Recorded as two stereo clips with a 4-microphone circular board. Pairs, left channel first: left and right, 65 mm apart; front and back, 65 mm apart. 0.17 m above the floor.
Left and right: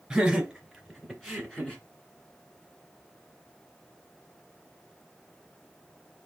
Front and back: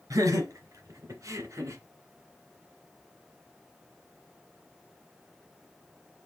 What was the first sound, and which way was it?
Laughter, 170° right.